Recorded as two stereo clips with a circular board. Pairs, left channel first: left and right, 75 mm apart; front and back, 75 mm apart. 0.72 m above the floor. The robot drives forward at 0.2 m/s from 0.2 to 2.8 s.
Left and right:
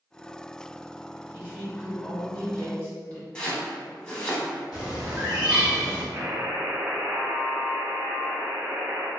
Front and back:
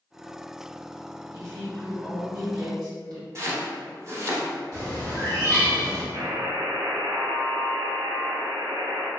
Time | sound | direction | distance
1.3 | a woman speaking | 145° left | 1.8 m
3.4 | chopping | 165° left | 0.7 m
4.7 | a bird | 165° right | 1.2 m
6.1 | a buzzer | 150° right | 0.6 m